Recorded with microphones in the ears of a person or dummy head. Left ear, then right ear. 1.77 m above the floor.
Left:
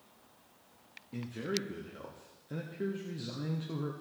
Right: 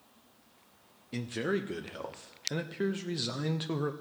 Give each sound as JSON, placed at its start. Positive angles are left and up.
{"t": 1.1, "sound": "a man speaking", "side_deg": -35, "distance_m": 0.5}